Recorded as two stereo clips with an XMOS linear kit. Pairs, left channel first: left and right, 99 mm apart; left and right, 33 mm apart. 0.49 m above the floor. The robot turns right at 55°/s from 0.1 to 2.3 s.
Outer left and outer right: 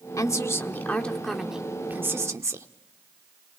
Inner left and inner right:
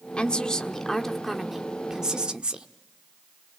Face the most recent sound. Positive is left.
turn(degrees=-130)